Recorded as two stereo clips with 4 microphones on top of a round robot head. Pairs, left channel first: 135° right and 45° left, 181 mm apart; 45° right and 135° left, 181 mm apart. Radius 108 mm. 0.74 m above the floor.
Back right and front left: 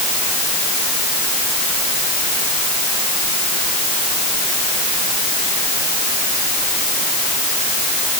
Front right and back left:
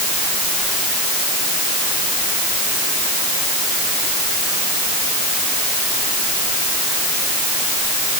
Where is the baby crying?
No baby crying in this recording.